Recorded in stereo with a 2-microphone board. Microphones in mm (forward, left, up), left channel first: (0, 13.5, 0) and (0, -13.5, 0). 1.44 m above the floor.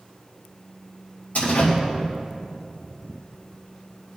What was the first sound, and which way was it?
A door slam, 80° left.